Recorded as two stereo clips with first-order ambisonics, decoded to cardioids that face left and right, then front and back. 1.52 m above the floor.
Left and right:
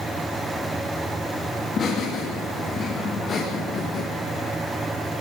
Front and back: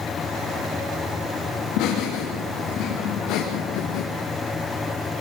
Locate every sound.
1.6 s laughter: 25° left, 3 m; by 4.0 s 30° left, 1.8 m